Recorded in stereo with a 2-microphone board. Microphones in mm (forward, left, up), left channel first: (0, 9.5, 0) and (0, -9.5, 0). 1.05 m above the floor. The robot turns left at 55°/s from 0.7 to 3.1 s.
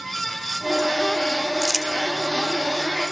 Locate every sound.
1.6 s crumpling: 5° left (ahead or behind), 1.8 m; by 1.9 s 10° right (ahead or behind), 1.8 m